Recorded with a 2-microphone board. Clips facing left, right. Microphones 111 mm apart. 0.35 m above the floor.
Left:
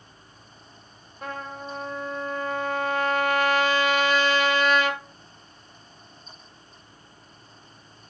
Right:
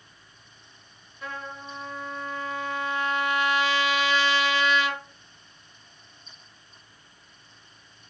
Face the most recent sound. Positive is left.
turn(degrees=45)  # may be behind; listen again after turning